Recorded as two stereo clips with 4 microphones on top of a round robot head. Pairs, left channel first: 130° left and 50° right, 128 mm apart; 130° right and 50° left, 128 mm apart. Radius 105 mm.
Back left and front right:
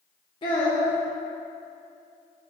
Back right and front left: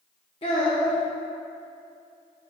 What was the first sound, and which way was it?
A child speaking, 175° right.